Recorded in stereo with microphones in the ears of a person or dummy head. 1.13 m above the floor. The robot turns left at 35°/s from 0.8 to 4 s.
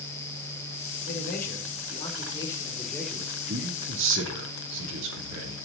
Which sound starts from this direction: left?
A man speaking, at 1.1 s.